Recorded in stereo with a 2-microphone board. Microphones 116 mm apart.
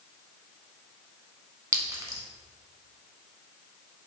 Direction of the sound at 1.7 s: 30° right (ahead or behind).